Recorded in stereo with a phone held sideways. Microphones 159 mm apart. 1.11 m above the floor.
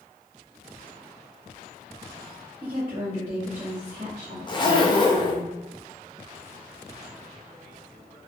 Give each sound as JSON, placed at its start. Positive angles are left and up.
{"t": 2.6, "sound": "a woman speaking", "side_deg": -25, "distance_m": 0.9}
{"t": 4.5, "sound": "a zipper", "side_deg": 30, "distance_m": 0.5}